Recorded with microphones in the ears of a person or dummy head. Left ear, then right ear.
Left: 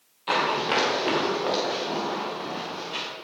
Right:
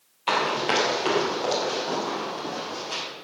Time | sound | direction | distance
0.3 | running footsteps | 30° right (ahead or behind) | 3 m